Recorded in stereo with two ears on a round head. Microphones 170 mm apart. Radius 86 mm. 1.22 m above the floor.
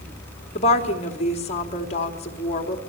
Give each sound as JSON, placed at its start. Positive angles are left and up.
{"t": 0.6, "sound": "a woman speaking", "side_deg": 35, "distance_m": 3.0}